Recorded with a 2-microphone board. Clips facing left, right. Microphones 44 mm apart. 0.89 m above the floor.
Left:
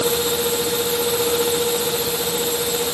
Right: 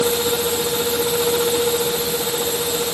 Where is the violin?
No violin in this recording.